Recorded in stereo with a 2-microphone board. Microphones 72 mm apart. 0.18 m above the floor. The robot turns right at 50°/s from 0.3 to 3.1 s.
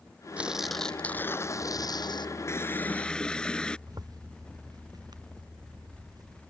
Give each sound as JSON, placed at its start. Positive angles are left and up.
{"t": 0.4, "sound": "tearing paper", "azimuth_deg": -20}
{"t": 2.5, "sound": "a running tap", "azimuth_deg": 135}
{"t": 3.9, "sound": "a zipper", "side_deg": -60}